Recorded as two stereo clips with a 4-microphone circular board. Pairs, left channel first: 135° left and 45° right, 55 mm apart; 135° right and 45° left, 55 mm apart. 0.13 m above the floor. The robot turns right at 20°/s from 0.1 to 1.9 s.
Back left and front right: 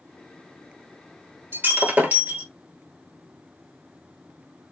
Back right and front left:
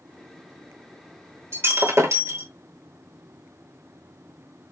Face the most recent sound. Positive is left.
turn(degrees=15)